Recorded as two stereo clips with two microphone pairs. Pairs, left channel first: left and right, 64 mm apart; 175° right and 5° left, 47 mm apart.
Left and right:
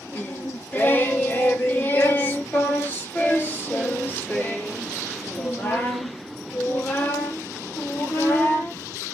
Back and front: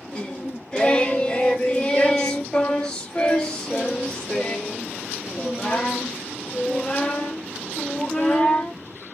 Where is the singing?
125° left, 1.3 m.